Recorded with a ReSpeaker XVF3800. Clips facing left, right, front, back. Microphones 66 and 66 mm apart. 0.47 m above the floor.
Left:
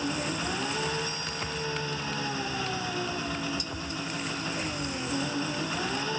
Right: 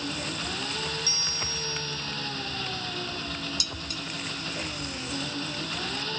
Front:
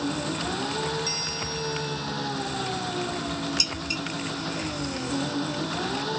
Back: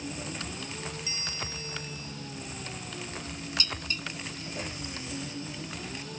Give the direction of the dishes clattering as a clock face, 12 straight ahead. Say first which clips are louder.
Left 2 dB, front 4 dB; 3 o'clock.